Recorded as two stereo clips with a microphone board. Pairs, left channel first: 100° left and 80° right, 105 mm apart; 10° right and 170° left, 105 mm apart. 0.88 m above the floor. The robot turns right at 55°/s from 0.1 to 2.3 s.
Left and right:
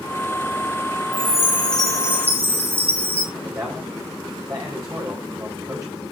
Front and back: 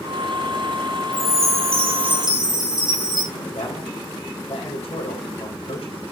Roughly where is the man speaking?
Ahead right.